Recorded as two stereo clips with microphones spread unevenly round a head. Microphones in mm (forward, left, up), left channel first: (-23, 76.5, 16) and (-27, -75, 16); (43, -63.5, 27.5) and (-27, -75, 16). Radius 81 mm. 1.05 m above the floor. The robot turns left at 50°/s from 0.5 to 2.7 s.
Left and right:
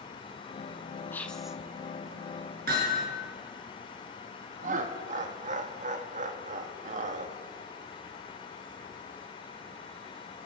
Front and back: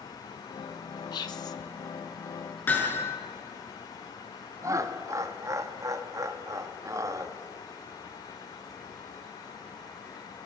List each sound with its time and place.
1.1 s whispering: 15° left, 1.3 m; by 1.6 s 10° right, 1.3 m
2.7 s hammering: 50° right, 6.5 m; by 3.0 s 55° right, 6.5 m
4.6 s laughter: 130° right, 1.8 m